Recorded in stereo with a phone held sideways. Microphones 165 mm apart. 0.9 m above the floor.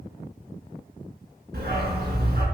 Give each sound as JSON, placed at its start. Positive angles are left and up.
{"t": 1.5, "sound": "a dog barking", "side_deg": -70, "distance_m": 3.5}